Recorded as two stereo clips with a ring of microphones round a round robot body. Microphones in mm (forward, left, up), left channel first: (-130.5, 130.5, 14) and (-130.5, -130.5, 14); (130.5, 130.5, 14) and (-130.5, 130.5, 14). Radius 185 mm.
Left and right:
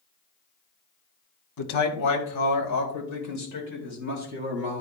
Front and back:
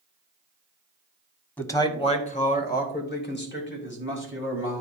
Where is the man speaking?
85° left, 1.5 m; by 4.8 s 40° left, 4 m.